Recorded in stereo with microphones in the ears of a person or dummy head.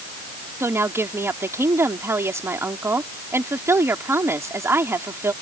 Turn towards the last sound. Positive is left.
turn(degrees=-15)  # may be behind; listen again after turning